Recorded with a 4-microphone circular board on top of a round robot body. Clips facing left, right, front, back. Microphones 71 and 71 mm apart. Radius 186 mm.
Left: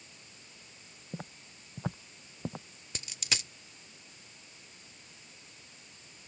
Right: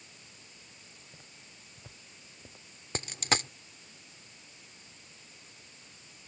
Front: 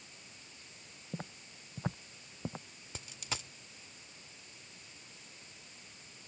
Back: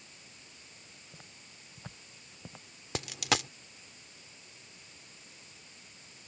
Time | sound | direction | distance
1.1 | footsteps | 50° left | ?
3.0 | a dropped coin | 150° right | ?